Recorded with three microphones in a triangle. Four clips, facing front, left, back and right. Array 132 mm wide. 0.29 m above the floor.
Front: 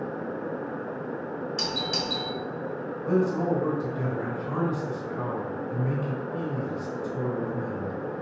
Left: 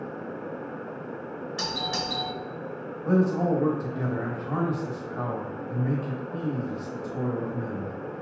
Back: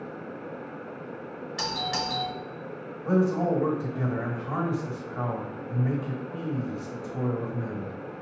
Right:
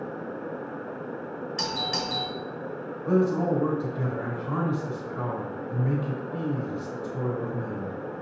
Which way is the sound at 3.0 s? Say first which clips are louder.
Even, back 1 dB; 140° left.